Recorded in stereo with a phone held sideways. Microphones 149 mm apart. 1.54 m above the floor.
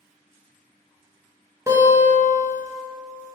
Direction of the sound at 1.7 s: 15° right (ahead or behind).